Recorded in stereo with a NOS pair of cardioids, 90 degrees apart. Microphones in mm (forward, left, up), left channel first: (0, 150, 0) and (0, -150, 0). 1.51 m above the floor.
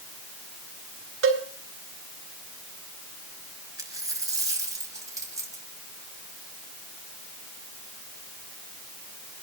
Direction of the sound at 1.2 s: 45° right.